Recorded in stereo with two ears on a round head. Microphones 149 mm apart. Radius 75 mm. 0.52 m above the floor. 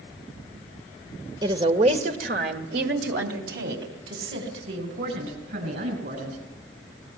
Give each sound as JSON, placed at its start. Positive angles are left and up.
{"t": 1.4, "sound": "a woman speaking", "side_deg": -25, "distance_m": 1.9}